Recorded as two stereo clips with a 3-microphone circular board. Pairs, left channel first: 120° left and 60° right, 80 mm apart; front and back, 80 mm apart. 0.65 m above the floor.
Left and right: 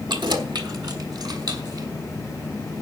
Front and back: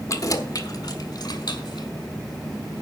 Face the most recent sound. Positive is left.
turn(degrees=-25)